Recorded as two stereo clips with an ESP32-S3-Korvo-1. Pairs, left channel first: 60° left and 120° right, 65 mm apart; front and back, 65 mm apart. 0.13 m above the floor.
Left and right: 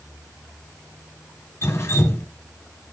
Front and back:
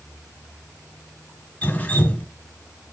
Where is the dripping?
55° left, 1.4 m.